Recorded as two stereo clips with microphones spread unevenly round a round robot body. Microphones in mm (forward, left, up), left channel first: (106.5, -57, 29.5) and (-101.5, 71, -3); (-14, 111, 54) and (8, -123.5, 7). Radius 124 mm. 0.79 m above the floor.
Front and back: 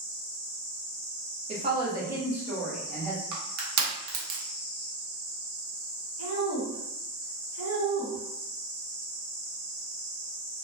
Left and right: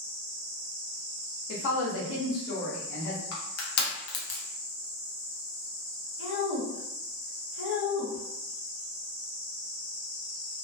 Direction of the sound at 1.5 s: 110° left.